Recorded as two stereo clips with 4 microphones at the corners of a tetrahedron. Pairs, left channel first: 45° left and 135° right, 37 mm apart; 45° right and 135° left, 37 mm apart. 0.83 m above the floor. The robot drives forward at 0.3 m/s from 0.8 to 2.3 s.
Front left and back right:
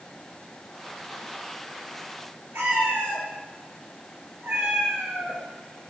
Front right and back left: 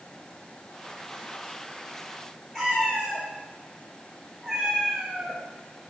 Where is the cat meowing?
140° right, 3.5 m.